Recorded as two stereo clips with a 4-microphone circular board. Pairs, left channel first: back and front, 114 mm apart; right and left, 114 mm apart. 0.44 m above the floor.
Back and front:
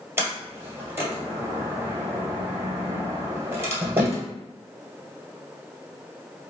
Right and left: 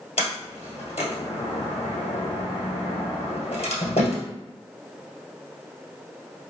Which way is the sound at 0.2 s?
70° right.